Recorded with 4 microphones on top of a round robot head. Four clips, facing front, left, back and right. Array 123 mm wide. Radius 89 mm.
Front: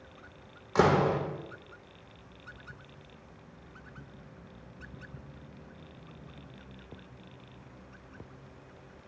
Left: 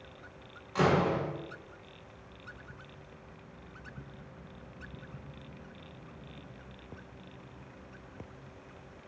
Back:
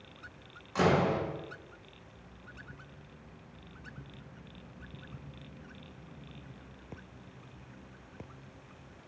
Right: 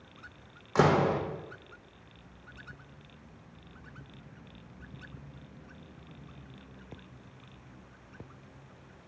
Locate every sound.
0.8 s a door slam: 50° right, 0.7 m